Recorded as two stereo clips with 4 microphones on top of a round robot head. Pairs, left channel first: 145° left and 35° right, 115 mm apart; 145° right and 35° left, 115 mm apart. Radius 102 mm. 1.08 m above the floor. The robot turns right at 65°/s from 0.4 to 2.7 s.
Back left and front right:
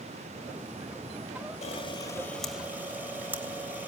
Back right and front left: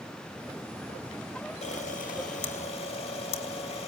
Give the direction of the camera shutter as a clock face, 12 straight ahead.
6 o'clock.